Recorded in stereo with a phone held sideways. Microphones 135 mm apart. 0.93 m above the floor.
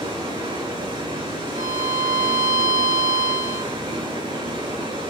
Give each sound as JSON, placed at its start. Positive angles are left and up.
{"t": 0.0, "sound": "running water", "side_deg": -40, "distance_m": 7.0}
{"t": 1.6, "sound": "a violin", "side_deg": -70, "distance_m": 1.2}